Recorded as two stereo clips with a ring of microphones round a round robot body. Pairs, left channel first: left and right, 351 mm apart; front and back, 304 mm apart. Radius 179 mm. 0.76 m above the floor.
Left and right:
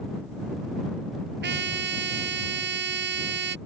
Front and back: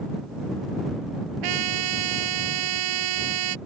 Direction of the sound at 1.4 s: 150° right.